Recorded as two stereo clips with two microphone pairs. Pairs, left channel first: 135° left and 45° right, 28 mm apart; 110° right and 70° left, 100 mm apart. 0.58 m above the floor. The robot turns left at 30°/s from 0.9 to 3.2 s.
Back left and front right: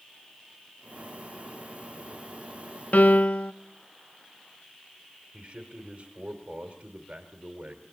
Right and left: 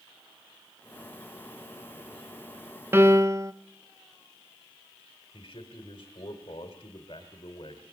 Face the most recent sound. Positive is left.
turn(degrees=-65)